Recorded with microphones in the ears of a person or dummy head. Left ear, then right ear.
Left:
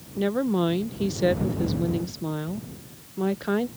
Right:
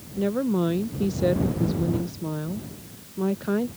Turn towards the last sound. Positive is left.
turn(degrees=20)  # may be behind; listen again after turning